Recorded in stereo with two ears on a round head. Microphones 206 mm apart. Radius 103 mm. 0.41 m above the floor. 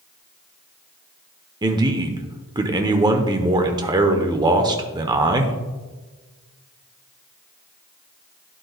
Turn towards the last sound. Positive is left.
turn(degrees=-20)  # may be behind; listen again after turning